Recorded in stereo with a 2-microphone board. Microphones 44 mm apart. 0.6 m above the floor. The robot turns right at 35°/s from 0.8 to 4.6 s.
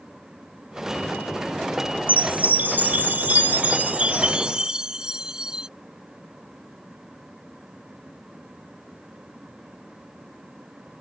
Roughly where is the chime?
Behind right.